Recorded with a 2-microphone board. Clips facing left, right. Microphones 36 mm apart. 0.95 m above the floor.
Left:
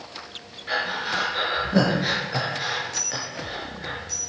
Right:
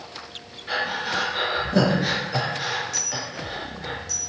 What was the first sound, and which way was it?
Breathing, 10° left (ahead or behind).